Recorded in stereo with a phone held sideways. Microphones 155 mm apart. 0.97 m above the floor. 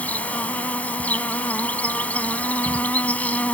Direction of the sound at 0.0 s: 10° left (ahead or behind).